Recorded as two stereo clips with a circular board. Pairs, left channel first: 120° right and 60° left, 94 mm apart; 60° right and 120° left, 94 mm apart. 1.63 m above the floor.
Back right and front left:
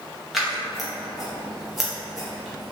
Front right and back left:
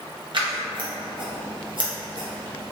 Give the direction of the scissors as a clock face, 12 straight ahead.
7 o'clock.